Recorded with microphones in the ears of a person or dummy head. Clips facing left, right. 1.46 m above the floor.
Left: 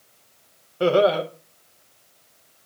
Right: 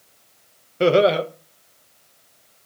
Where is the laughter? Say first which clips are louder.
Right 2 dB; 30° right (ahead or behind), 0.8 m.